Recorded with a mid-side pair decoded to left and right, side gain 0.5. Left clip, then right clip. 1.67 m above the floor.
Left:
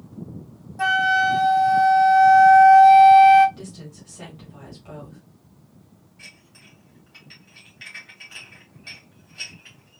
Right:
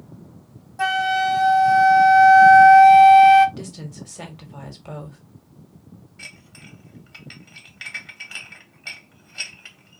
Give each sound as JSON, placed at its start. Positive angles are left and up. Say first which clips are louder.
{"t": 0.8, "sound": "a flute", "louder": "left 2 dB", "azimuth_deg": -20, "distance_m": 0.6}
{"t": 3.6, "sound": "a woman speaking", "louder": "right 4 dB", "azimuth_deg": -50, "distance_m": 1.8}
{"t": 6.2, "sound": "dishes clattering", "louder": "right 5 dB", "azimuth_deg": -55, "distance_m": 2.0}